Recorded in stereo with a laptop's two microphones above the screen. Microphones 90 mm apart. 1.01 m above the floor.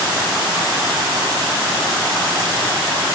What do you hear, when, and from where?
Only background noise.